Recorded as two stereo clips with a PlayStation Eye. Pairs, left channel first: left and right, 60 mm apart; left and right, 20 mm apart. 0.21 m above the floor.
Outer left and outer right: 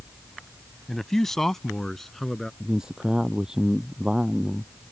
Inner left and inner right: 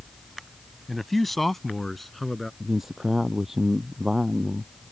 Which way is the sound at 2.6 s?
10° right (ahead or behind).